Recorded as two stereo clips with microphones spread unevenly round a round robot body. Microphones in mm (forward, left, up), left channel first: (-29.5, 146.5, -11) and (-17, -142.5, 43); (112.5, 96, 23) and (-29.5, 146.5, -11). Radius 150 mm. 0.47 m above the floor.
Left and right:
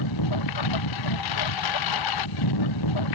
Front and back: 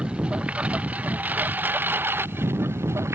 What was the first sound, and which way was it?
A lawn mower, 75° left.